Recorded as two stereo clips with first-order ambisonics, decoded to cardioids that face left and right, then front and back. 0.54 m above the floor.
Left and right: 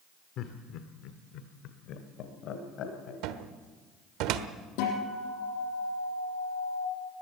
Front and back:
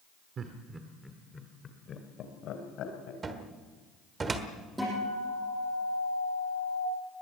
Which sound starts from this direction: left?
A guitar, at 4.8 s.